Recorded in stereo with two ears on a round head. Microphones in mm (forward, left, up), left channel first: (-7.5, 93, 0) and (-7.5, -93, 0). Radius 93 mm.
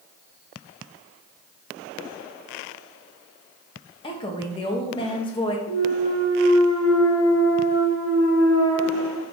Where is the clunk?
70° left (ahead or behind), 1.7 m.